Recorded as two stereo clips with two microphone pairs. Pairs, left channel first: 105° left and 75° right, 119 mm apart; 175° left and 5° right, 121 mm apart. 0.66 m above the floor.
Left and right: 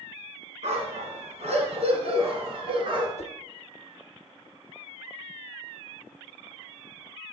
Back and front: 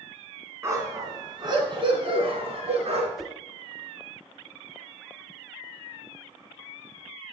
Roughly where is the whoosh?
Left.